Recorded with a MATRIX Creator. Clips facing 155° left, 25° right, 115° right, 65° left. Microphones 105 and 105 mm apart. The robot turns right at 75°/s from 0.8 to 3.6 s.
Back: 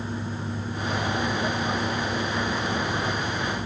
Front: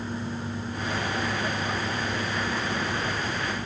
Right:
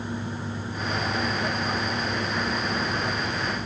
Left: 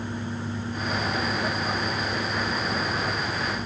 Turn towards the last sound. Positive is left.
No sound to turn to.